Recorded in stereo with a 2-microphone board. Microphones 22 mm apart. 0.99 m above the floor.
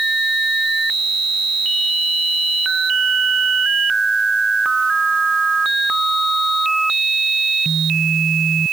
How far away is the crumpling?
I don't hear crumpling.